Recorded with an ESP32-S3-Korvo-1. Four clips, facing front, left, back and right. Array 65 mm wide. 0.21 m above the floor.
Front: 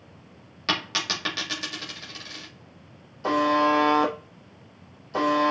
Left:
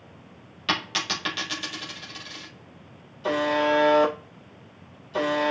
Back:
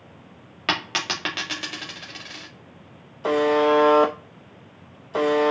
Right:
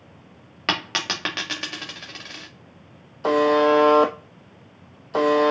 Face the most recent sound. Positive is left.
turn(degrees=-100)